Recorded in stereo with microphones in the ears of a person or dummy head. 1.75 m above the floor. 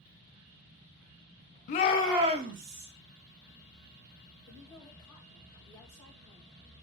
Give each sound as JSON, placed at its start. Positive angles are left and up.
{"t": 1.7, "sound": "a shout", "side_deg": 45, "distance_m": 0.8}
{"t": 4.5, "sound": "a woman speaking", "side_deg": 15, "distance_m": 2.5}